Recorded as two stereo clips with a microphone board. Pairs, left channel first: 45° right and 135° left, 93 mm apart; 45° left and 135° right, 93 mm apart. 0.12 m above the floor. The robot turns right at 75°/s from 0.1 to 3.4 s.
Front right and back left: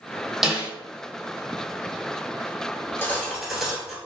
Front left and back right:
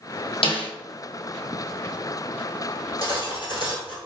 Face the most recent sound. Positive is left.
turn(degrees=45)